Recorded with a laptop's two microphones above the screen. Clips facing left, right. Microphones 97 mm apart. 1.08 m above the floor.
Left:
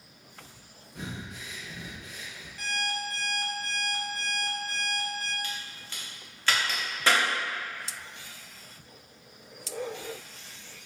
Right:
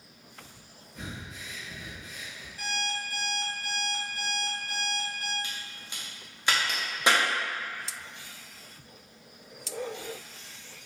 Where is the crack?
15° right (ahead or behind), 0.6 m.